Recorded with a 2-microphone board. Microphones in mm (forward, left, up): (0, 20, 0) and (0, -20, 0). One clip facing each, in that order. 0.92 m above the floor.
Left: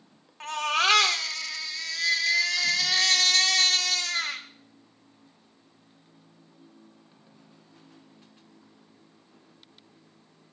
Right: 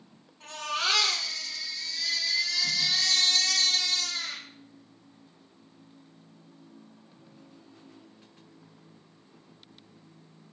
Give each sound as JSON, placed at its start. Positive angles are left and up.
{"t": 0.4, "sound": "a baby crying", "side_deg": 80, "distance_m": 1.6}